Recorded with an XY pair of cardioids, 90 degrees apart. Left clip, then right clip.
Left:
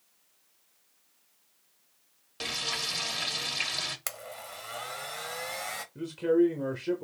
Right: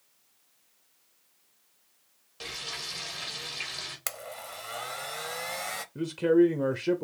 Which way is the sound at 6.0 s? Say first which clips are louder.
Right 3 dB; 45° right.